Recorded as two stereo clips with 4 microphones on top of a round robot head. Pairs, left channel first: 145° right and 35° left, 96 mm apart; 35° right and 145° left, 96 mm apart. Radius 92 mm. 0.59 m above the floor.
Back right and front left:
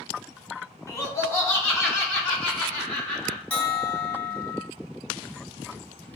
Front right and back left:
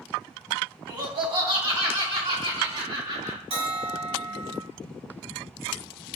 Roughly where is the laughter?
Behind.